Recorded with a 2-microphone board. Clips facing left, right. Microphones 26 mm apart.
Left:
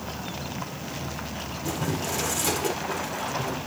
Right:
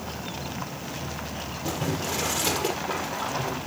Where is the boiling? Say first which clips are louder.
Even; 30° right (ahead or behind), 1.9 m.